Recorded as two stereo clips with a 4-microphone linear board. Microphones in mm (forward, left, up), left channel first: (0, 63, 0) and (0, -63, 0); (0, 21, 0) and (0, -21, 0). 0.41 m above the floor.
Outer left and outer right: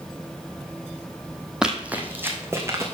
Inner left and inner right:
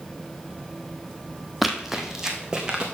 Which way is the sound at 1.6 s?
5° right (ahead or behind).